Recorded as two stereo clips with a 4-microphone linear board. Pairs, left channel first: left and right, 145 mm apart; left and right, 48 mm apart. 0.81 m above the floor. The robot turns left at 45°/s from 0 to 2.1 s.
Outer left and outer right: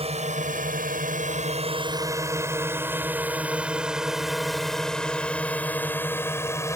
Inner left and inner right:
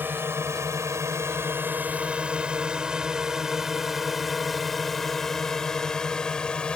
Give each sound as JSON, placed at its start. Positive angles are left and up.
{"t": 0.0, "sound": "a drone", "side_deg": -45}